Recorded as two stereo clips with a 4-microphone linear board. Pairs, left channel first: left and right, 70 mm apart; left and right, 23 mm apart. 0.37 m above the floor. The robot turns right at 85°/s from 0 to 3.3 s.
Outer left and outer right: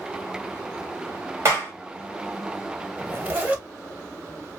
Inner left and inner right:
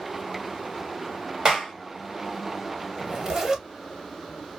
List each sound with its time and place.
1.4 s a clap: 40° right (ahead or behind), 1.6 m; by 1.7 s 20° right (ahead or behind), 1.6 m
3.0 s a zipper: 35° right (ahead or behind), 0.9 m; by 3.7 s 20° right (ahead or behind), 0.9 m